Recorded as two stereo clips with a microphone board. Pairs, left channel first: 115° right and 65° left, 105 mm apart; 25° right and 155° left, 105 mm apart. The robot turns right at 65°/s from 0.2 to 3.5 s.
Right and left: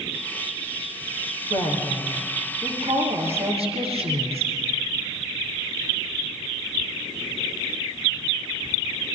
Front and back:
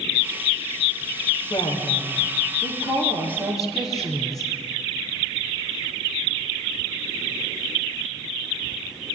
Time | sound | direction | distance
1.5 | a woman speaking | 65° right | 6.5 m